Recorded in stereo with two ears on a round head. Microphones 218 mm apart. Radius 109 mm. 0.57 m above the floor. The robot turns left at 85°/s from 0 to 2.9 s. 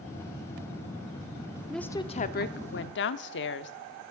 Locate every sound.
1.7 s a woman speaking: straight behind, 0.9 m; by 3.7 s 80° left, 0.9 m